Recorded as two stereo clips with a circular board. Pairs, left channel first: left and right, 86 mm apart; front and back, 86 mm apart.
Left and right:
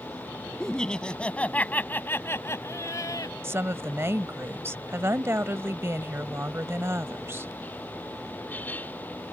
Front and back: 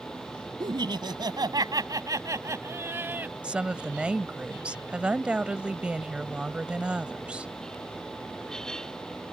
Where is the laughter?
170° left; by 3.3 s 115° left.